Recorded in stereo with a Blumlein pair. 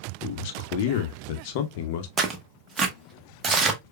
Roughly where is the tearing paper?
Ahead.